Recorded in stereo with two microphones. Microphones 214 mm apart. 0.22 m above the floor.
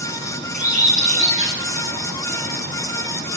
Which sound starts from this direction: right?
A bird, at 0.5 s.